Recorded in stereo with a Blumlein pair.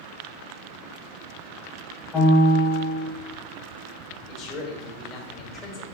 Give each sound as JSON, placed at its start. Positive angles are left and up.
{"t": 2.1, "sound": "a piano", "azimuth_deg": 25, "distance_m": 1.3}
{"t": 4.3, "sound": "a man speaking", "azimuth_deg": 30, "distance_m": 1.2}